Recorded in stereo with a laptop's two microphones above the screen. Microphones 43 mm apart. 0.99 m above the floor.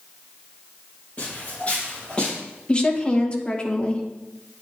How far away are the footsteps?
About 4.5 m.